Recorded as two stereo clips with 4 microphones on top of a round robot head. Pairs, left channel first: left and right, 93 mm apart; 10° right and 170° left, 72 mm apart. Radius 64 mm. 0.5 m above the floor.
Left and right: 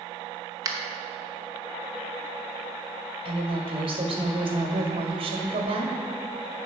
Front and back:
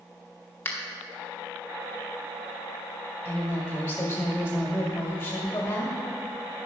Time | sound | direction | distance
0.7 | a finger snap | 60° right | 1.0 m
3.2 | a woman speaking | 75° right | 1.7 m